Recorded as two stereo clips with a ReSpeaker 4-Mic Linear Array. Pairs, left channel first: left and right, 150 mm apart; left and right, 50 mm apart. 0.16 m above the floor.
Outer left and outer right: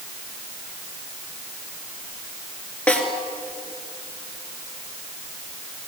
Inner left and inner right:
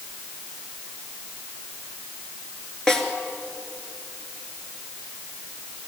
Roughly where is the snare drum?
Centre.